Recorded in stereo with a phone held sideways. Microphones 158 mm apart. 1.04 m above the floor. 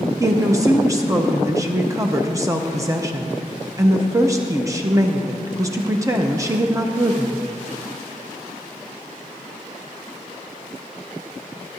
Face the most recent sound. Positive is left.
turn(degrees=-20)  # may be behind; listen again after turning